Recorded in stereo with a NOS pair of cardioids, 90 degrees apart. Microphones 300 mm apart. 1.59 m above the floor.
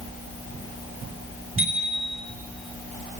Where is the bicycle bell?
45° right, 4 m.